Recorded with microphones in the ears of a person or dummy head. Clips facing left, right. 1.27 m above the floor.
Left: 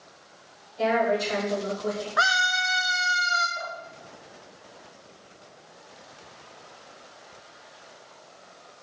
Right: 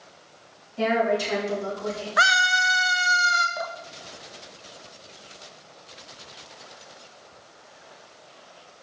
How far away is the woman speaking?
About 3.5 m.